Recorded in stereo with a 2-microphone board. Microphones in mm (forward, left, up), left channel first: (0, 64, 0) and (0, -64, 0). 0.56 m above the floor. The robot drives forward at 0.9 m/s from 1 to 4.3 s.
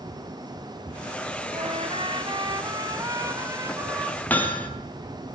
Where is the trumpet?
50° right (ahead or behind), 1.8 m; by 4.2 s 20° right (ahead or behind), 4 m.